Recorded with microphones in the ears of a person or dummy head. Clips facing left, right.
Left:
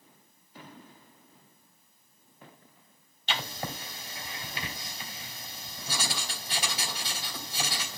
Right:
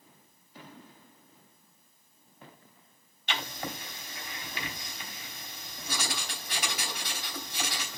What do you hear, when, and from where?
3.3 s writing: 35° left (ahead or behind), 2.5 m